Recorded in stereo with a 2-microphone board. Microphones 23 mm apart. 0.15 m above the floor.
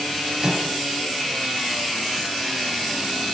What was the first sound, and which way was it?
A microwave, 40° right (ahead or behind).